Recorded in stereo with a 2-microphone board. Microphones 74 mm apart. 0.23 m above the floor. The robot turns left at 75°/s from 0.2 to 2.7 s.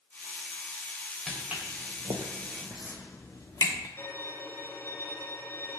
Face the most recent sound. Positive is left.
turn(degrees=30)  # may be behind; listen again after turning